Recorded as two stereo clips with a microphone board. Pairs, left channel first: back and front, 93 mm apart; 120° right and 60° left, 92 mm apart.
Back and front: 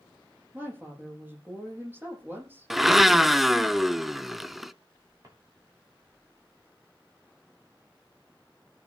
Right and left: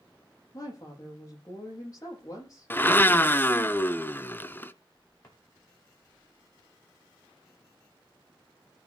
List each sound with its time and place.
0.5 s a woman speaking: 70° right, 6.5 m
2.7 s a blender: 85° right, 0.7 m
5.2 s a drawer: 50° right, 5.5 m